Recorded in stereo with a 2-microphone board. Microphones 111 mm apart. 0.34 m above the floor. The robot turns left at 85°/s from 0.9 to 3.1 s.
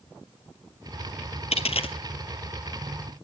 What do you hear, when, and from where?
1.5 s a dropped coin: 70° left (ahead or behind), 0.7 m; by 2.0 s 55° left (ahead or behind), 0.7 m